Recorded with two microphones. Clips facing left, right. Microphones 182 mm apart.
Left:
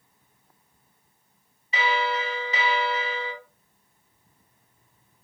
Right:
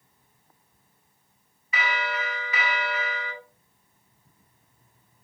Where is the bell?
30° left (ahead or behind), 1.3 m.